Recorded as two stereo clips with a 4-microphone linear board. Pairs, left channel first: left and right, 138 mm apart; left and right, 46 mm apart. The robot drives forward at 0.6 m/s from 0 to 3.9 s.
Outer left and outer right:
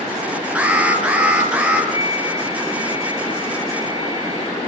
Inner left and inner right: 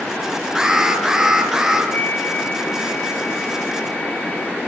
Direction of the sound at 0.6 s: 10° right (ahead or behind).